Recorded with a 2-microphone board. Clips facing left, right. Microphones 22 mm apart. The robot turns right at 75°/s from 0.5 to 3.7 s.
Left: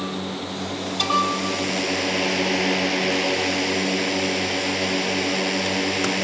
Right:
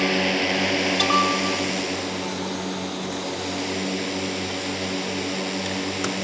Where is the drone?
85° right; by 6.2 s 155° left.